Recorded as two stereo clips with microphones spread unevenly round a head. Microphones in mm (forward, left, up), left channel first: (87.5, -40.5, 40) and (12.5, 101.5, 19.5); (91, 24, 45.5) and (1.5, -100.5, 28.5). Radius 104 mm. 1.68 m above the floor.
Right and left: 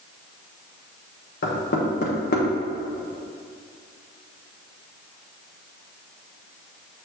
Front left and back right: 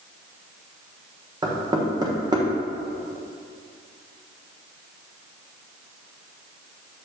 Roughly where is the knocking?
Ahead right.